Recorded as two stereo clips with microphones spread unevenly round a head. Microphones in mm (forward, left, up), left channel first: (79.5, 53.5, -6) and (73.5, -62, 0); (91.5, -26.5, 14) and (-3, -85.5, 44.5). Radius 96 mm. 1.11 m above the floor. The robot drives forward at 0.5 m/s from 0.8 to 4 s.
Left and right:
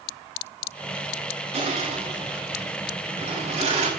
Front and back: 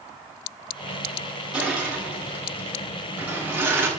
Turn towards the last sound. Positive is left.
turn(degrees=-75)